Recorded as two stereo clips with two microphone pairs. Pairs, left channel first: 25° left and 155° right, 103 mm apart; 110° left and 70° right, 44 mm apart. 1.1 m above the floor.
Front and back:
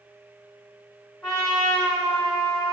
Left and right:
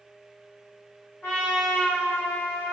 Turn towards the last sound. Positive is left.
turn(degrees=70)